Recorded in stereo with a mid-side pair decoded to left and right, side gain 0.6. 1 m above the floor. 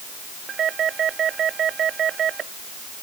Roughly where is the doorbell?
Ahead right.